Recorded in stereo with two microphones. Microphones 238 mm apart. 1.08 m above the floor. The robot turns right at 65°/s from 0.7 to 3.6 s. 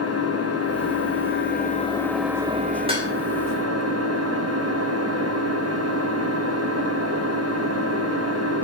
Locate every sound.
0.0 s an engine running: 80° left, 1.9 m; by 8.7 s 90° right, 1.9 m
2.9 s dishes clattering: 25° right (ahead or behind), 4 m; by 3.1 s 10° right (ahead or behind), 4 m